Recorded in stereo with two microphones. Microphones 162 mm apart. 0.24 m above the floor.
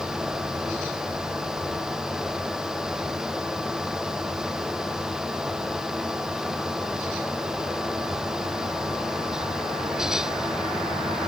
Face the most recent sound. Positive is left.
No sound to turn to.